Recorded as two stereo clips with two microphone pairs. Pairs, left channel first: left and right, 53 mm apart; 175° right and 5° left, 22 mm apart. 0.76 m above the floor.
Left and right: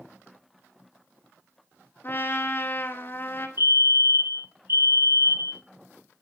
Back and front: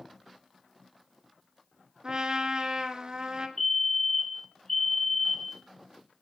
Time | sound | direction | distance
2.0 | a trumpet | 50° left | 2 m
3.6 | a fire alarm | 95° right | 2.5 m